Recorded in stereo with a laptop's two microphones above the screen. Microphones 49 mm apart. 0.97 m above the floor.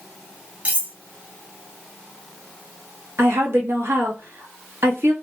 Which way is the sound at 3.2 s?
60° right (ahead or behind).